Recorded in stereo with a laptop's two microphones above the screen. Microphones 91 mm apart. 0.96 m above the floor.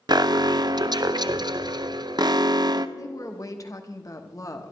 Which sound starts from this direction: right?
An alarm, at 0.1 s.